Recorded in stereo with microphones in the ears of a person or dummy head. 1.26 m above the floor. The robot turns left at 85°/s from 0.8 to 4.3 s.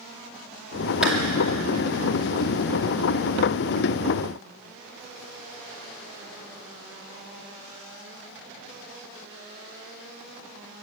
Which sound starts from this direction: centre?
A clap, at 1.0 s.